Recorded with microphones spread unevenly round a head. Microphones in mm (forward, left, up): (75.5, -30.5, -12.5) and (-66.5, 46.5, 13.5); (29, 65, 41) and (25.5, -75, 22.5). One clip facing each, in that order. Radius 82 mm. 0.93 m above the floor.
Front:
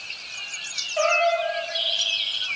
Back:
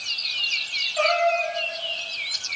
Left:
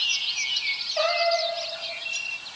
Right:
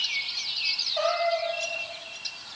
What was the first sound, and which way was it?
A cat meowing, 10° left.